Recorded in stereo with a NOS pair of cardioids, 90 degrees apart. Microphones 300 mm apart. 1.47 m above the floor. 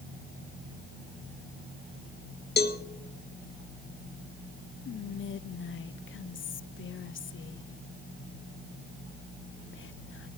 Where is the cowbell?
35° left, 1.5 m.